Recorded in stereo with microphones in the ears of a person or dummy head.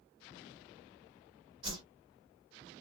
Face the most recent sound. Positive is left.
turn(degrees=-20)  # may be behind; listen again after turning